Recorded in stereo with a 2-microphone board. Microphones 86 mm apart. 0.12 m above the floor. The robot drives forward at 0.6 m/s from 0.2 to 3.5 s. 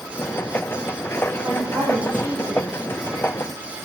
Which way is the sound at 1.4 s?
25° right (ahead or behind).